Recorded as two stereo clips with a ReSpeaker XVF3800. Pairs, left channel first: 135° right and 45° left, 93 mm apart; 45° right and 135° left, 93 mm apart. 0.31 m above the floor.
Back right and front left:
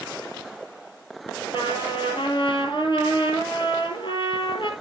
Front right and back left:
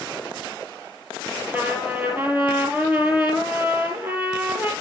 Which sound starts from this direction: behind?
A trumpet, at 1.5 s.